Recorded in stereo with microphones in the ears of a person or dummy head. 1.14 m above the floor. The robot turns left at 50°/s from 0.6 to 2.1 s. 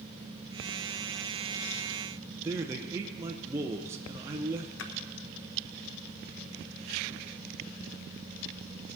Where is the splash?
65° left (ahead or behind), 0.8 m.